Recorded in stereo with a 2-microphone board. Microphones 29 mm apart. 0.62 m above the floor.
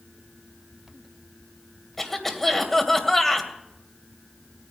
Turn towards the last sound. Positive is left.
turn(degrees=5)  # may be behind; listen again after turning